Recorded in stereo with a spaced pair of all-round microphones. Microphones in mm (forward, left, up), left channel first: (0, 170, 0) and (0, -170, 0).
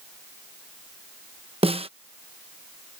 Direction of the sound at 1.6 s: 15° right (ahead or behind).